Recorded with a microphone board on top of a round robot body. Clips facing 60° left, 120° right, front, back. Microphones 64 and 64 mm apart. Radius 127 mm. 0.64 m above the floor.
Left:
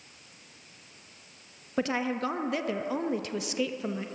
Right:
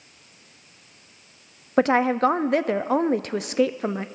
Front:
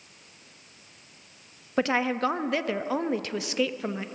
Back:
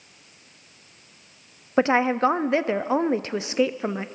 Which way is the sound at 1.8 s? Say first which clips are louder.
Right 10 dB, back 5 dB; 125° right.